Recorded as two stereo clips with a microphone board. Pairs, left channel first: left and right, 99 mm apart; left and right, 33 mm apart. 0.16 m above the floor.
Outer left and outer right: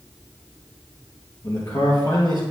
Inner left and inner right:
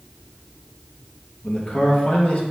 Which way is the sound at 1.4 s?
50° left (ahead or behind).